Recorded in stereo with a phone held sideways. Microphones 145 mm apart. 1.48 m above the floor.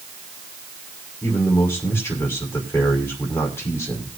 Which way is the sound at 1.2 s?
10° left (ahead or behind).